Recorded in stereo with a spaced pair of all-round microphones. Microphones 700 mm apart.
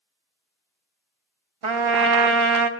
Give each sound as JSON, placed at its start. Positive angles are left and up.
{"t": 1.6, "sound": "a trumpet", "side_deg": -45, "distance_m": 0.8}